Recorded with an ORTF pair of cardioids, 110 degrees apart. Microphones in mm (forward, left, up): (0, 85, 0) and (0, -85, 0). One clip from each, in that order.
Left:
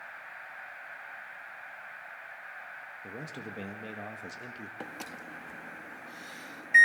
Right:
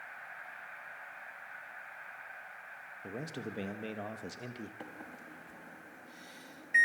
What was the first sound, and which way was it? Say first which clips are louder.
A man speaking: right 2 dB; 15° right.